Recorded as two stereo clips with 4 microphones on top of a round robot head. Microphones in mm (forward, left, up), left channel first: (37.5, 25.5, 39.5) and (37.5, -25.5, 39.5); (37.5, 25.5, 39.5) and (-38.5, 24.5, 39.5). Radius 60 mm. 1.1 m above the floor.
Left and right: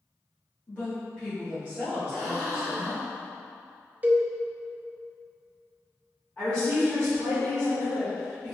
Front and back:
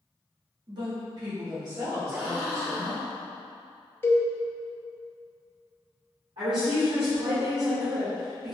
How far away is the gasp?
About 1.3 m.